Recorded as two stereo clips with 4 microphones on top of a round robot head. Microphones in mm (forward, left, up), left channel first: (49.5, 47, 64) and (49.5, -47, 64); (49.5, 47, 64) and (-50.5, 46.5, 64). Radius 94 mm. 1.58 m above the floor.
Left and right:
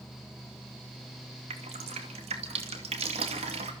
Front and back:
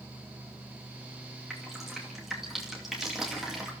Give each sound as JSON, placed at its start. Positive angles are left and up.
{"t": 1.5, "sound": "dripping", "azimuth_deg": -90, "distance_m": 2.5}